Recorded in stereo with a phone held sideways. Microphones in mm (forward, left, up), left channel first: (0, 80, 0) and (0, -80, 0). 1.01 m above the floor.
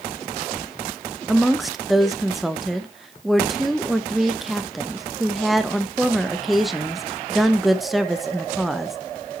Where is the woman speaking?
Centre (ahead or behind), 0.7 m.